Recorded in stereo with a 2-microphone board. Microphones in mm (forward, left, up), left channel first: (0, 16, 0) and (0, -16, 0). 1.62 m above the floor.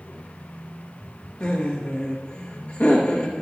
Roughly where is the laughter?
Left.